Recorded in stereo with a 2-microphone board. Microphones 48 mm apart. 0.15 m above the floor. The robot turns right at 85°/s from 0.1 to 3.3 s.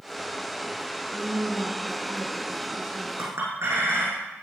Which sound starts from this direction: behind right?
A woman speaking, at 1.1 s.